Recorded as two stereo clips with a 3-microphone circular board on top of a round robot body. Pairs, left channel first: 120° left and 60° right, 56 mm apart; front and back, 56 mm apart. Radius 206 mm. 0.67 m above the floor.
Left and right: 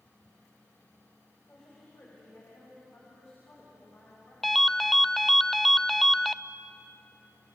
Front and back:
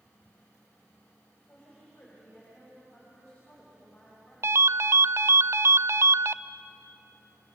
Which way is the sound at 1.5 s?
70° left.